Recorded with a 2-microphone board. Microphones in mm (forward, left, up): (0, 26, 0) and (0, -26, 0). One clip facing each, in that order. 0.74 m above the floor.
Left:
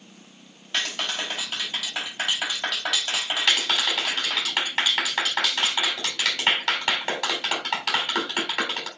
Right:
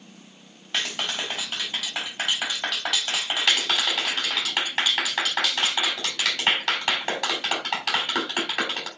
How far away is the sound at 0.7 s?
About 4.5 m.